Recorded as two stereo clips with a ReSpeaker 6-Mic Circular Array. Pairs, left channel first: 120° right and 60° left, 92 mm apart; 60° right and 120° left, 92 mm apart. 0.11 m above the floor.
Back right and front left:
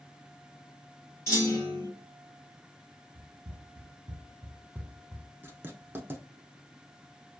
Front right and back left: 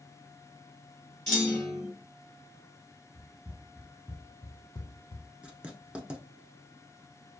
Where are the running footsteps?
55° left, 1.0 m; by 5.3 s 50° right, 0.6 m.